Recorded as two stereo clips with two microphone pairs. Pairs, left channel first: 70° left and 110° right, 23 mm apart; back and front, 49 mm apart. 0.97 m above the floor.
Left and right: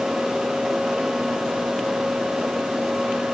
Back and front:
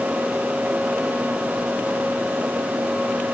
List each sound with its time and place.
Only background noise.